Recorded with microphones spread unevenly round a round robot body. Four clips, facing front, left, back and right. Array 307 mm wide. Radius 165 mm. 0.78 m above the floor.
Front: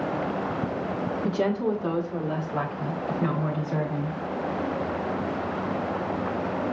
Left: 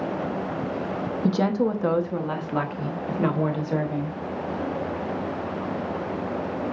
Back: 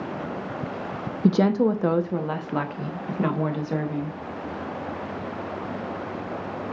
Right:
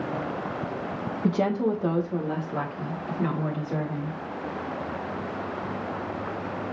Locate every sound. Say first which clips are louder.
1.2 s a woman speaking: left 1 dB, back 7 dB; 155° left, 0.6 m; by 4.2 s 125° left, 2 m